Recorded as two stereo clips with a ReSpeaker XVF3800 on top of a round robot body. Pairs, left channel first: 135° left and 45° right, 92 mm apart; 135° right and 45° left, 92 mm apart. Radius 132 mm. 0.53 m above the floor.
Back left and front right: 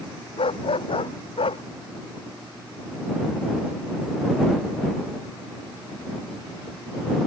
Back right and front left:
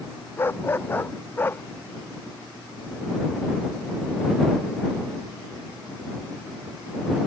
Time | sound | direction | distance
0.4 | a dog barking | 160° left | ?